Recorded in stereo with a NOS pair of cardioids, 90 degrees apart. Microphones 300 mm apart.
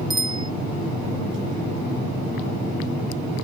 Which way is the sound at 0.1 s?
15° right.